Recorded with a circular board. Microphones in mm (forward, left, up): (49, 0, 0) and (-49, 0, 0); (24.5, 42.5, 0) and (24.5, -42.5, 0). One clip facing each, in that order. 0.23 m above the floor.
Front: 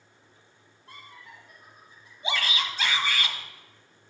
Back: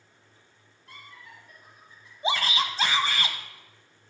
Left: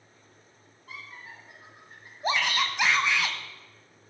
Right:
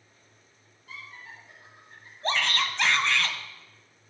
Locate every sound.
0.9 s laughter: 55° left, 3 m; by 3.2 s 40° left, 5 m
2.2 s a shout: 160° left, 1.4 m